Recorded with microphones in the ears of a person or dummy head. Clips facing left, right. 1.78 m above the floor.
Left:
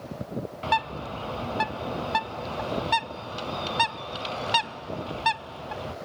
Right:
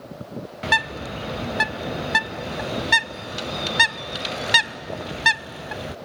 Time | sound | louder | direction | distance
0.6 | a bird | right 2 dB | 20° right (ahead or behind) | ?